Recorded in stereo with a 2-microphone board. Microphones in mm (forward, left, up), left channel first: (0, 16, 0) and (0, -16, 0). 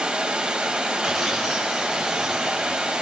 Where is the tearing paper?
5° right (ahead or behind), 3 m.